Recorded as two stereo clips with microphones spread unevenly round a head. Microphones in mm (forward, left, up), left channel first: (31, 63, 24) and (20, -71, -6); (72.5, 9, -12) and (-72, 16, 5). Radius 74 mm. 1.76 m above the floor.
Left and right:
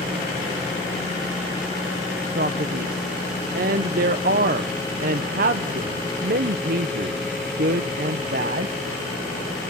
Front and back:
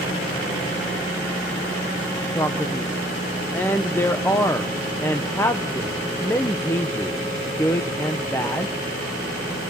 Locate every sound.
2.4 s a man speaking: 80° right, 0.9 m